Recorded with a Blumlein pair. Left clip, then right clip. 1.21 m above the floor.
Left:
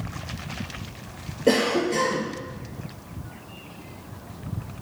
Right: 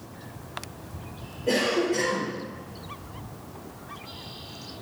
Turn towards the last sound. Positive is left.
turn(degrees=55)